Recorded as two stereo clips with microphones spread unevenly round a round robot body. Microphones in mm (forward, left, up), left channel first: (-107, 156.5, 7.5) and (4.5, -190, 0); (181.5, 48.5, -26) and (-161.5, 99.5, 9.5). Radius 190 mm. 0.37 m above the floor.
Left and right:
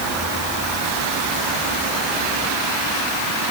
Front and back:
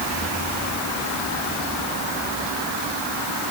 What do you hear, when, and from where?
Only background noise.